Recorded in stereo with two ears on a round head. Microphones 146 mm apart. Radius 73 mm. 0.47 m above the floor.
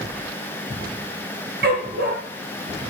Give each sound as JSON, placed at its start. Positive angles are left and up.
{"t": 1.6, "sound": "a dog barking", "side_deg": -60, "distance_m": 3.0}